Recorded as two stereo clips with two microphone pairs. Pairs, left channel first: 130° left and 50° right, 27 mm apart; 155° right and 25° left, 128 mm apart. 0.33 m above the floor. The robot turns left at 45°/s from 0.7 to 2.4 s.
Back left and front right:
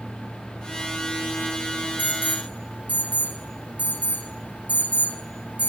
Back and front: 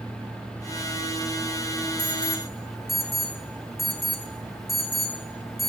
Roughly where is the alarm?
Ahead right.